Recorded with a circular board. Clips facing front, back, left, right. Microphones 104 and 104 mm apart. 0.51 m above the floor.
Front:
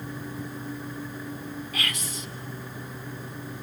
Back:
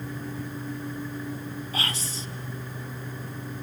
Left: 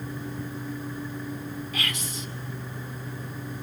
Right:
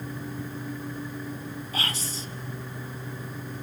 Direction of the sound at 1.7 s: 135° right.